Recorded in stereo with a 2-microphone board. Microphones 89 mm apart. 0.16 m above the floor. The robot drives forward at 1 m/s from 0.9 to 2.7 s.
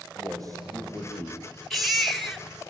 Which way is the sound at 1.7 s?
Centre (ahead or behind).